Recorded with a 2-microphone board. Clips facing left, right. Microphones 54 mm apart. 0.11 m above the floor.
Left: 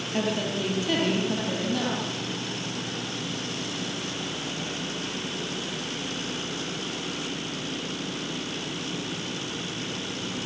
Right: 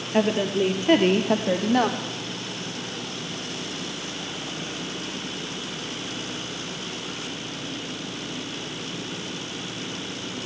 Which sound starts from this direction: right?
A woman speaking, at 0.1 s.